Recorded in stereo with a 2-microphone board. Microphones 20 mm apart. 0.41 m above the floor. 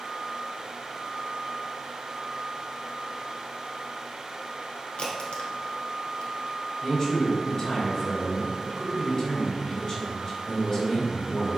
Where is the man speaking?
25° left (ahead or behind), 1.8 m.